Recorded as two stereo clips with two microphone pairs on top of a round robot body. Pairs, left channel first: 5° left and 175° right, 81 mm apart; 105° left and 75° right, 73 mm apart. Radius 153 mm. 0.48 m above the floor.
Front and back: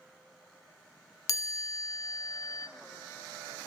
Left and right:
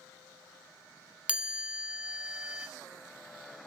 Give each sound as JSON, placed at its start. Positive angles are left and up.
{"t": 1.3, "sound": "a chime", "azimuth_deg": -25, "distance_m": 0.7}